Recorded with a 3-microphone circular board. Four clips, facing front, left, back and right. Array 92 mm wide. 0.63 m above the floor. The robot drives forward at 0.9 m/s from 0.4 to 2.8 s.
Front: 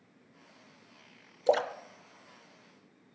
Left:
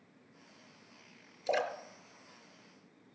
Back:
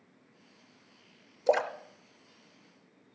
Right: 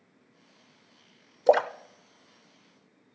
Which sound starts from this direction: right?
A splash, at 1.5 s.